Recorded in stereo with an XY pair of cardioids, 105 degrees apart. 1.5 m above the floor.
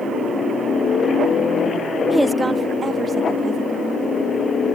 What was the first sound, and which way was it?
A woman speaking, 10° left.